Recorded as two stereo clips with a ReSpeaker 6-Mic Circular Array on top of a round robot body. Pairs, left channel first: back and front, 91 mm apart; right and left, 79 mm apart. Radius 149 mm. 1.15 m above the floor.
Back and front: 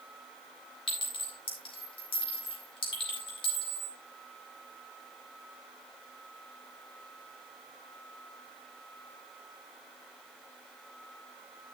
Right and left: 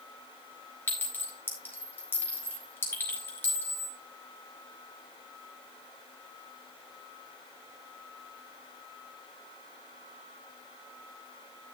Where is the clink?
150° right, 4 m.